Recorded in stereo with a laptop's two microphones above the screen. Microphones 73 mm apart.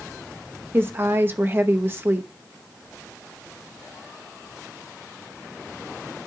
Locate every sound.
0.7 s a woman speaking: 30° right (ahead or behind), 0.6 m